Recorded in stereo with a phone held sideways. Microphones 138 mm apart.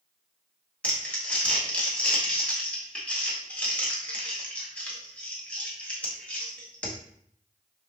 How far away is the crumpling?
About 1.0 m.